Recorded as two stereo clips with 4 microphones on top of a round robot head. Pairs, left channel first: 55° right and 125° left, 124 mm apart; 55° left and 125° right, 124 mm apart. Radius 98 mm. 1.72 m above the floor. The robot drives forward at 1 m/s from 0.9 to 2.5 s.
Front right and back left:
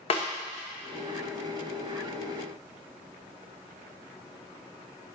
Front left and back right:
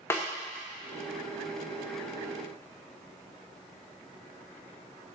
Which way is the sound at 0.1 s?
15° right.